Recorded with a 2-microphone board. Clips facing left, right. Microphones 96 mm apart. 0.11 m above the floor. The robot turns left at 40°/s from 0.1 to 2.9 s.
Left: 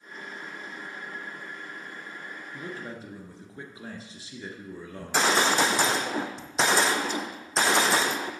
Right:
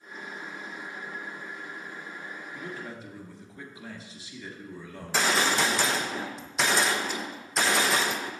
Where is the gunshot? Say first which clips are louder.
Left 2 dB; 30° left (ahead or behind), 0.9 m.